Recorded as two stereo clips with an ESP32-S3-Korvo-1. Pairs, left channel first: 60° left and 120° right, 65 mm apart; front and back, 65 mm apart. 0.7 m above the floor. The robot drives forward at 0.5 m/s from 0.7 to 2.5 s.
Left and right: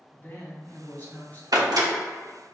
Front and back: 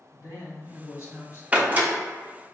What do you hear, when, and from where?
0.1 s a woman speaking: 10° left, 1.4 m; by 1.4 s 15° left, 1.2 m
1.5 s a door slam: 110° right, 0.9 m; by 1.9 s 120° right, 1.0 m